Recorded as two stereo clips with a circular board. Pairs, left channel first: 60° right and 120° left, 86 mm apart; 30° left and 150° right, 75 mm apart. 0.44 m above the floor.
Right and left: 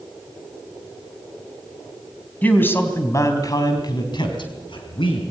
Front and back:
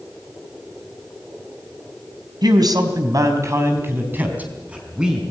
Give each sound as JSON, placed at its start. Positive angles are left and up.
{"t": 2.4, "sound": "a man speaking", "azimuth_deg": -130, "distance_m": 3.5}